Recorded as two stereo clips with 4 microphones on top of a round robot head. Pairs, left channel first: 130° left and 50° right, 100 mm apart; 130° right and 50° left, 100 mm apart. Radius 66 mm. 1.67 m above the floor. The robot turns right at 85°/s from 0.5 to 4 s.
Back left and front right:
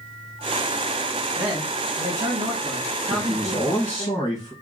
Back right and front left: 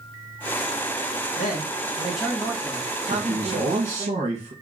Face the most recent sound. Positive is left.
turn(degrees=75)